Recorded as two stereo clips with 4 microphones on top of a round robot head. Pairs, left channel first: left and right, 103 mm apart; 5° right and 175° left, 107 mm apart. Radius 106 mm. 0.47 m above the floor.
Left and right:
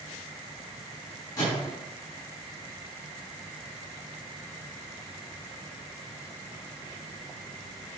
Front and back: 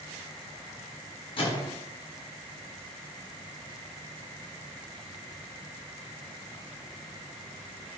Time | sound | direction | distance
1.4 | a microwave | 35° left | 4.5 m